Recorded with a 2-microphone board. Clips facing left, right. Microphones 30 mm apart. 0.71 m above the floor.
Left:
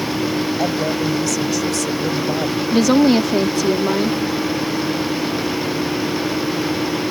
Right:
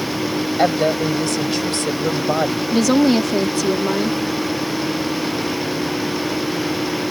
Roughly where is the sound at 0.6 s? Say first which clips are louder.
Right 2 dB; right.